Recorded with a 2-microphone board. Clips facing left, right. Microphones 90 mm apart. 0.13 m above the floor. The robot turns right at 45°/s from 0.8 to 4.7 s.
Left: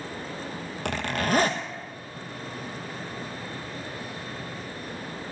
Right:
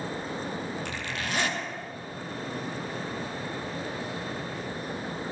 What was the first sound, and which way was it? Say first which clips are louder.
A zipper: left 7 dB; 110° left.